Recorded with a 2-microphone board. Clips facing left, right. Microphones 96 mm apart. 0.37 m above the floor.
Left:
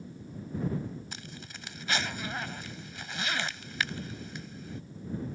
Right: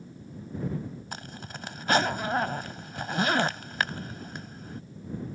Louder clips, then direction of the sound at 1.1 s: Right 5 dB; 50° right (ahead or behind).